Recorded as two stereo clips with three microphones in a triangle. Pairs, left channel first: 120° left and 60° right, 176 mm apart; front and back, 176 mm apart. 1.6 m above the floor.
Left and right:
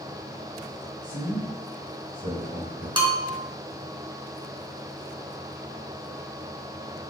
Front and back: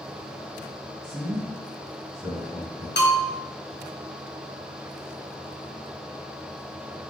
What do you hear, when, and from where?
1.0 s a man speaking: 100° right, 1.8 m
3.0 s a bell: 5° left, 0.8 m